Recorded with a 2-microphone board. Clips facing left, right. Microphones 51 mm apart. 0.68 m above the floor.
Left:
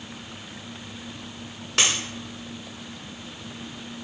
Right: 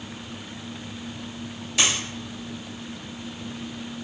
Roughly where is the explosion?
I don't hear an explosion.